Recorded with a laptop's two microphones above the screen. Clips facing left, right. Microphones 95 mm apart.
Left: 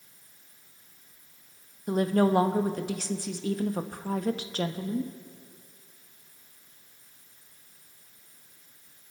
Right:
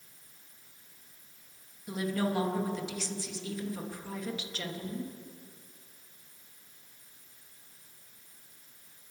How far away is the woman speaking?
About 0.8 m.